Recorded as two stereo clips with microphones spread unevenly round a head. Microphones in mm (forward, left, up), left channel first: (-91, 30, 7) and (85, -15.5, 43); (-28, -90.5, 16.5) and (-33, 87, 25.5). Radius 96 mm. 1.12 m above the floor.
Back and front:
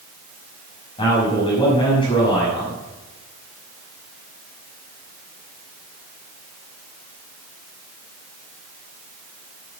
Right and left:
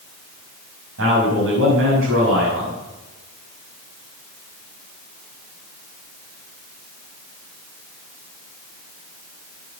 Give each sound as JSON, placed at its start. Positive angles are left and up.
{"t": 1.0, "sound": "a man speaking", "azimuth_deg": 100, "distance_m": 6.0}